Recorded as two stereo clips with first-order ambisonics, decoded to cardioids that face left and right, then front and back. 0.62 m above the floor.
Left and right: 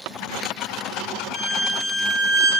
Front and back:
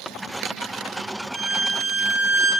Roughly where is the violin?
Right.